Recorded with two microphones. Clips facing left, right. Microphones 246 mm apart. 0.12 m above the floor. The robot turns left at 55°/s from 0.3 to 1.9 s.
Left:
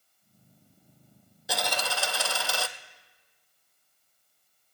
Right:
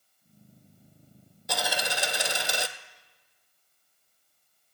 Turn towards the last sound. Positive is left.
turn(degrees=-20)  # may be behind; listen again after turning